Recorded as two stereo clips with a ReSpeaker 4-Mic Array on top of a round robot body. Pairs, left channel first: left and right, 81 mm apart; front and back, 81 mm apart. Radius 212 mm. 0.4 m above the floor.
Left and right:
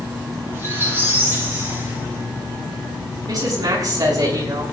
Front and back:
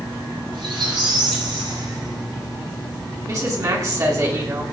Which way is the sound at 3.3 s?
135° right.